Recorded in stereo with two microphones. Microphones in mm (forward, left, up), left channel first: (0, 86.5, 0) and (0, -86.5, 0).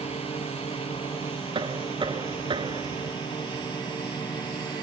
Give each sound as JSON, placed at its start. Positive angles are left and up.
{"t": 0.0, "sound": "a drone", "side_deg": 35}
{"t": 1.6, "sound": "knocking", "side_deg": -30}